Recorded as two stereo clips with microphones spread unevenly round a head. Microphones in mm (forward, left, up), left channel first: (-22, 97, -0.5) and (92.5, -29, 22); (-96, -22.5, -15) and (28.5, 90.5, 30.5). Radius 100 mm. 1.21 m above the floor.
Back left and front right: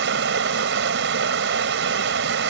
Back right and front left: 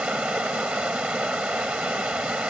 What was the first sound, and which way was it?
Running water, 40° right.